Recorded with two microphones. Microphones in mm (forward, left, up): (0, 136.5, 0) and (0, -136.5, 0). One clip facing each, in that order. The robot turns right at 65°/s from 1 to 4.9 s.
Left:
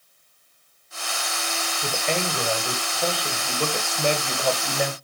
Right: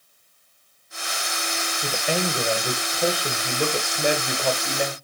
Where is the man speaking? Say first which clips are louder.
Right 1 dB; centre (ahead or behind), 1.3 m; by 5.0 s 10° left (ahead or behind), 1.3 m.